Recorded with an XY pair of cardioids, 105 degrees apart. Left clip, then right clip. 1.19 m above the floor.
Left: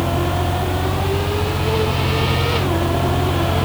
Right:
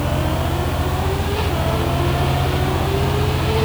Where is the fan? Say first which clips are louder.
Left 2 dB; 25° right, 0.8 m.